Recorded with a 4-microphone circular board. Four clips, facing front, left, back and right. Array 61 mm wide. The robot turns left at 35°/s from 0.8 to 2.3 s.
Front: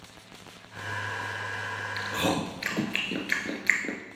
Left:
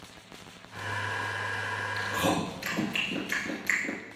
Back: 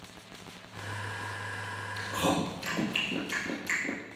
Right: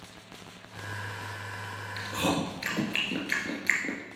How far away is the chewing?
About 1.4 m.